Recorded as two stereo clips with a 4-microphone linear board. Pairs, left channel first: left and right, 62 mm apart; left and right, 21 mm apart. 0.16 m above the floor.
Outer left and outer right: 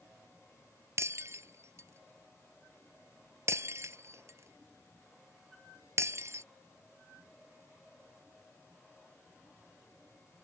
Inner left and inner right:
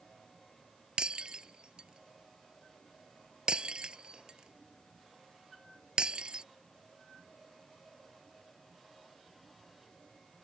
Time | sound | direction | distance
1.0 | breaking glass | 50° right (ahead or behind) | ?